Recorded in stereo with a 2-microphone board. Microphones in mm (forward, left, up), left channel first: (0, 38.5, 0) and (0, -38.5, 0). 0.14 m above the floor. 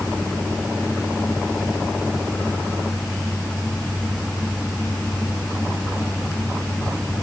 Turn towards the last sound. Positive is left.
No sound to turn to.